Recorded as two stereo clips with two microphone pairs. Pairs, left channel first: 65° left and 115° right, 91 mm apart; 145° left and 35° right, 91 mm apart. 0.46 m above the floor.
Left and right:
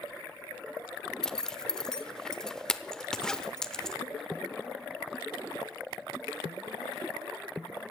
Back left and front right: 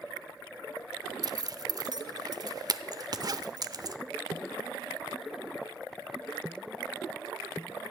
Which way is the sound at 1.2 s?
10° right.